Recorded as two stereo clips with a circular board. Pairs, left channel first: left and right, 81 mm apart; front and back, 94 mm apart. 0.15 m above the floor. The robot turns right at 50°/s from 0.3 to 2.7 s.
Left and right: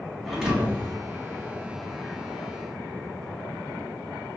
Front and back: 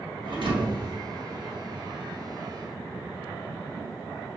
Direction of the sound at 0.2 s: Straight behind.